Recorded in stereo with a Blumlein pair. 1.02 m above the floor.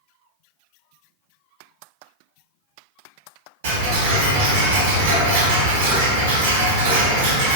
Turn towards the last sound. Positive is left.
turn(degrees=-60)